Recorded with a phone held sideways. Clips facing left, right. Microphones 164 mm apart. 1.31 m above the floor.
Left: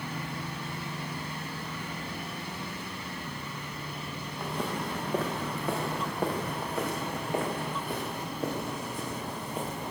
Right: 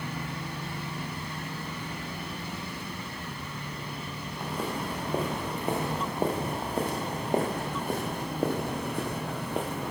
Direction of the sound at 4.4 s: 5° right (ahead or behind).